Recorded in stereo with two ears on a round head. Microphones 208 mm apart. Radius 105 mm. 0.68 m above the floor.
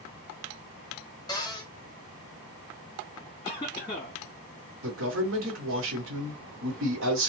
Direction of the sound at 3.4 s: 20° left (ahead or behind).